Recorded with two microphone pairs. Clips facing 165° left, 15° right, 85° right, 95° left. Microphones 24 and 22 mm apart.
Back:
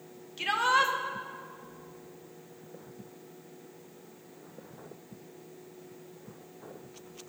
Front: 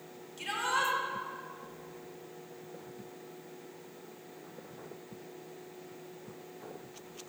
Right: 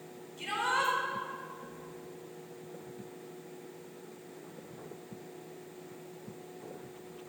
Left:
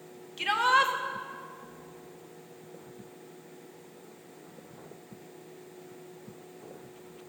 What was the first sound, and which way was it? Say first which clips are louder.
A shout: back 6 dB, left 7 dB; 120° left.